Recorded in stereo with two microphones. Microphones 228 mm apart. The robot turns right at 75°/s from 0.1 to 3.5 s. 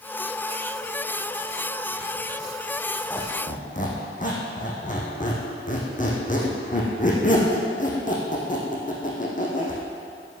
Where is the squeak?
5° left (ahead or behind), 3.5 m; by 9.8 s 35° left (ahead or behind), 3.5 m.